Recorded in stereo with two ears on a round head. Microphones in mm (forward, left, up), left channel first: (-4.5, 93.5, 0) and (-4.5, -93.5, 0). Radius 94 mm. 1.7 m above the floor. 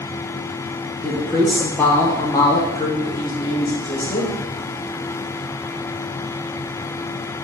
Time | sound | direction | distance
1.0 | a woman speaking | 5° right (ahead or behind) | 0.6 m